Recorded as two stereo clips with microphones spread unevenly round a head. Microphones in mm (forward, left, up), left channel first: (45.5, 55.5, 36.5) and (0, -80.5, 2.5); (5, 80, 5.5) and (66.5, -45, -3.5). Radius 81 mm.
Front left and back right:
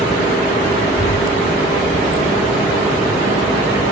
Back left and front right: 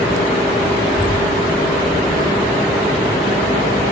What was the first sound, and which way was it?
A child speaking, 30° left.